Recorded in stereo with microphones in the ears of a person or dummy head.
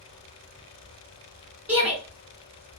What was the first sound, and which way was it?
A shout, 5° right (ahead or behind).